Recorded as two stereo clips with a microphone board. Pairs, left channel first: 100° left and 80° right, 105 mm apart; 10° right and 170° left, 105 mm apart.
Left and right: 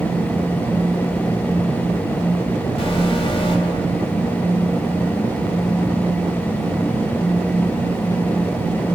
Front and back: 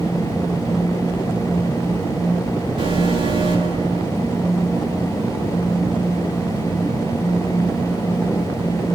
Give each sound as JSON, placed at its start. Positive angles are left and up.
{"t": 2.8, "sound": "an alarm", "azimuth_deg": 130, "distance_m": 6.5}